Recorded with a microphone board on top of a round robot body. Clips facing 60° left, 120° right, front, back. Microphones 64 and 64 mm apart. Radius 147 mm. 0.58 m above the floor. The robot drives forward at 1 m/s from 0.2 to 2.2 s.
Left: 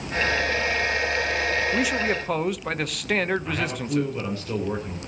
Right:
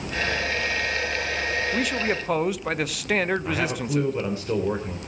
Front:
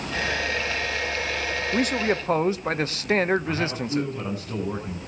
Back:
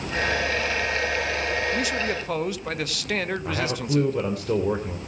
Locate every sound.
1.7 s a man speaking: 20° right, 1.4 m; by 4.1 s 35° right, 1.1 m
3.5 s a man speaking: 175° left, 3 m